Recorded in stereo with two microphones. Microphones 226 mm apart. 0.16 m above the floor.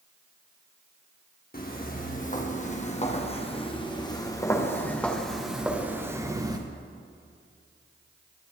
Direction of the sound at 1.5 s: 40° left (ahead or behind).